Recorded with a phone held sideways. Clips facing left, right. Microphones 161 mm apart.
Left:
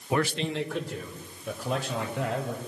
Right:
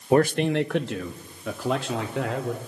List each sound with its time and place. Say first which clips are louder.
0.1 s a man speaking: right 8 dB; 30° right (ahead or behind), 0.5 m; by 2.6 s 85° right, 3.5 m